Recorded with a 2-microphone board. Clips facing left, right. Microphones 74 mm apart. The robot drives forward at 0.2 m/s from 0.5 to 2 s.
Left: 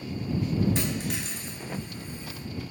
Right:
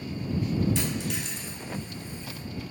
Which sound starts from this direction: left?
A dropped coin, at 0.8 s.